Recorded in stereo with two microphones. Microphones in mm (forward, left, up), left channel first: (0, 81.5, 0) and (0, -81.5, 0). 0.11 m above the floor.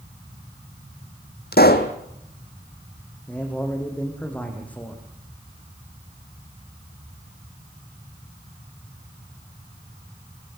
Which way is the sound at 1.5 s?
75° left (ahead or behind).